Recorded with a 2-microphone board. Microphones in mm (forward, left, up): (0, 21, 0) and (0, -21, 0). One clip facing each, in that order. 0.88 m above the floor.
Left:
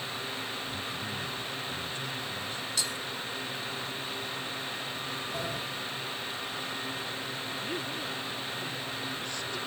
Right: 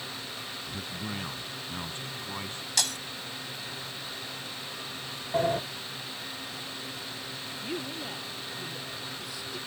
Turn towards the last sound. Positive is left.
turn(degrees=-10)  # may be behind; listen again after turning